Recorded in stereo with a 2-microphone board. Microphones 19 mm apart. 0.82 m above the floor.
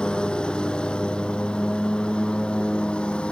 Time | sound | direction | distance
0.0 | a lawn mower | 50° left (ahead or behind) | ?